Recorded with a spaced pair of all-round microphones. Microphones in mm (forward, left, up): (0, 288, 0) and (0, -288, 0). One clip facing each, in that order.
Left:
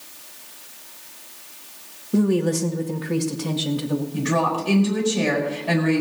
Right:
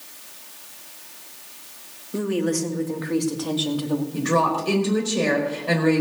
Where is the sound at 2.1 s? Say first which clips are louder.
Left 4 dB; 65° left (ahead or behind), 1.6 m; by 4.0 s 40° left (ahead or behind), 2 m.